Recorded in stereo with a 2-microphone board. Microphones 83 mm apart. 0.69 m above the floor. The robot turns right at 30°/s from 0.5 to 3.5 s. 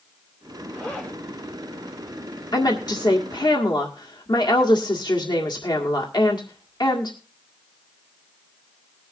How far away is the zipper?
About 3 m.